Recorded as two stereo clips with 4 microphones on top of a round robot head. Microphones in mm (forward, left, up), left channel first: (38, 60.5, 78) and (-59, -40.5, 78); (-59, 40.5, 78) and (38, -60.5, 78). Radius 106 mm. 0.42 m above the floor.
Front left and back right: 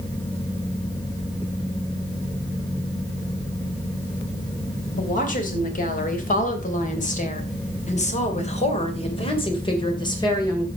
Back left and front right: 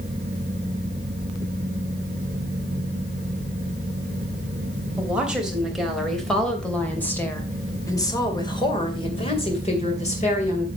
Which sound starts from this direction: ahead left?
A woman speaking, at 5.0 s.